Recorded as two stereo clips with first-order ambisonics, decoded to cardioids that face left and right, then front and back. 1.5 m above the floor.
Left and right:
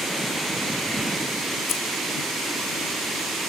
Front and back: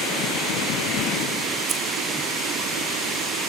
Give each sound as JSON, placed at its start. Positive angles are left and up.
{"t": 1.7, "sound": "keys jangling", "azimuth_deg": 120, "distance_m": 0.7}